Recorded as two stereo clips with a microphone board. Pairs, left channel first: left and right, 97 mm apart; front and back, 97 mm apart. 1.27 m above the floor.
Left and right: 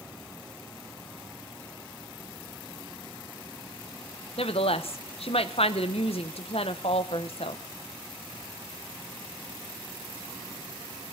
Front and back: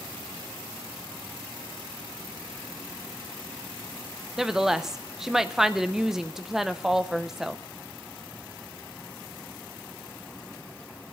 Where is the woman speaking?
95° left, 0.7 m.